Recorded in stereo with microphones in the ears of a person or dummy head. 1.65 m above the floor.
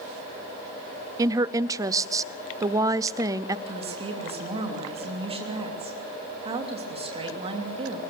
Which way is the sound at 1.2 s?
15° right (ahead or behind).